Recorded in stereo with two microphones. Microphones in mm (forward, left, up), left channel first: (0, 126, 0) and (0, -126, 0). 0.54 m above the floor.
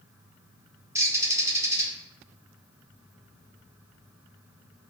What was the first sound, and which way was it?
A bird, 10° right (ahead or behind).